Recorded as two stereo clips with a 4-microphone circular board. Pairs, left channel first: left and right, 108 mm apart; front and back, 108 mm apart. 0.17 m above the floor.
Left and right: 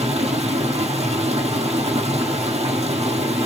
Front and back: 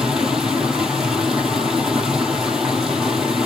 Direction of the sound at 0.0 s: 95° right.